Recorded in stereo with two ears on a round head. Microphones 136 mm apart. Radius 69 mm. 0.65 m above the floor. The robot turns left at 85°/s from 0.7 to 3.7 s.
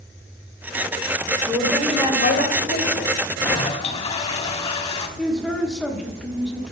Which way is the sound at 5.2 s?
5° left (ahead or behind).